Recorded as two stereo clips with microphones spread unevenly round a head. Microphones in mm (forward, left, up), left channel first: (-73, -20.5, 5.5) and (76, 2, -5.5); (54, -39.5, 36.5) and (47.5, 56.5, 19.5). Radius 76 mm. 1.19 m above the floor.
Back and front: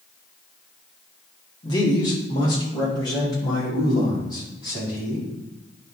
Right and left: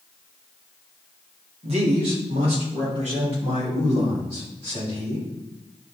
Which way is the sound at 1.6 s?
125° left.